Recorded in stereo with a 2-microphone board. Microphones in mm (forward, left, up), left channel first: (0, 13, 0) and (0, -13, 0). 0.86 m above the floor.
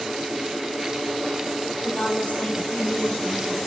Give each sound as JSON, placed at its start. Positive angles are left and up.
{"t": 1.8, "sound": "a woman speaking", "side_deg": 75, "distance_m": 3.5}